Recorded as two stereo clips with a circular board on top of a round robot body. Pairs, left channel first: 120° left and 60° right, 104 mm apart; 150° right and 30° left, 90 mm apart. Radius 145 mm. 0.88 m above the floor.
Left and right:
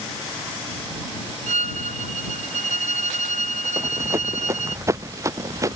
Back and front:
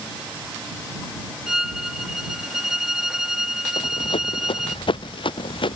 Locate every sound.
1.5 s a violin: 55° right
3.8 s running footsteps: 125° right; by 5.8 s 120° right